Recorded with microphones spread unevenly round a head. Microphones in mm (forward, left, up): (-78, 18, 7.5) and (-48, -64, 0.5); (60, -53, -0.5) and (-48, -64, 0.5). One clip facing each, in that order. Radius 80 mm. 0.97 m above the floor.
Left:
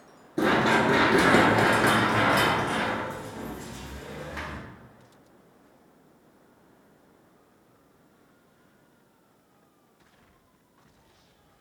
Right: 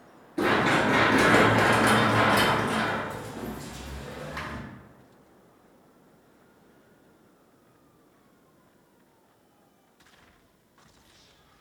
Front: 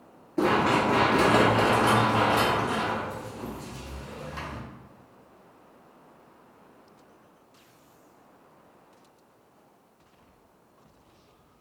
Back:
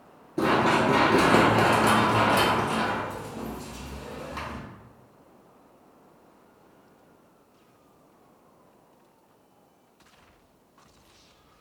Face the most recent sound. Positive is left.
turn(degrees=-145)